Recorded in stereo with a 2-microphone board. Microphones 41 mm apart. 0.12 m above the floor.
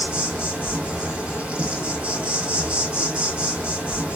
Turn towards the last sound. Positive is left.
turn(degrees=-35)  # may be behind; listen again after turning